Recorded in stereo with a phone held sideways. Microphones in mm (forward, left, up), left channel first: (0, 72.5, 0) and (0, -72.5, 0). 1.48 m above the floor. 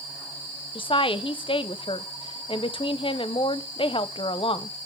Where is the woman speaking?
35° left (ahead or behind), 0.6 m.